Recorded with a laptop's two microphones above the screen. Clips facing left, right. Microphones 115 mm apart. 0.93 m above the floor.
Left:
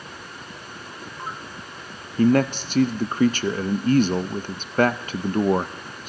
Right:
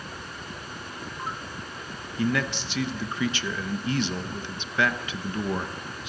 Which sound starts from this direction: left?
A man speaking, at 2.2 s.